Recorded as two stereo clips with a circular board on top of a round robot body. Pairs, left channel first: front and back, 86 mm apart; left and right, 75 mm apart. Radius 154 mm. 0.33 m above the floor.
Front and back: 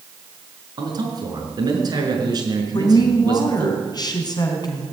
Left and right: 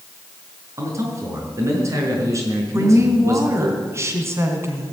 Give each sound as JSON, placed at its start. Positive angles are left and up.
{"t": 0.8, "sound": "a man speaking", "azimuth_deg": -140, "distance_m": 6.0}
{"t": 2.7, "sound": "a woman speaking", "azimuth_deg": -35, "distance_m": 4.0}